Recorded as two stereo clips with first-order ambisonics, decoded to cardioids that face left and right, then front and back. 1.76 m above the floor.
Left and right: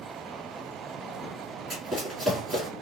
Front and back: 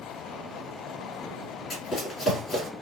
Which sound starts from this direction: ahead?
Running footsteps, at 1.7 s.